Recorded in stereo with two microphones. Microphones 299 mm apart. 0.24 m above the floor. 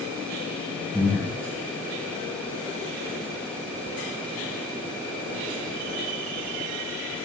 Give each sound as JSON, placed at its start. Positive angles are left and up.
{"t": 0.9, "sound": "breathing", "side_deg": 5, "distance_m": 8.0}